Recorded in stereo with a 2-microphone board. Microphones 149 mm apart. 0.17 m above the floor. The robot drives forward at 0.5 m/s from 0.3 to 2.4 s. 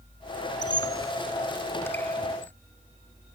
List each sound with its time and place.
0.6 s a squeak: 30° left (ahead or behind); by 2.5 s 10° left (ahead or behind)